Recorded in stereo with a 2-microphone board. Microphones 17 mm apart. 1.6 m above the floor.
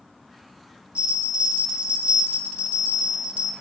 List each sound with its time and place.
0.9 s a bell: 85° right, 1.0 m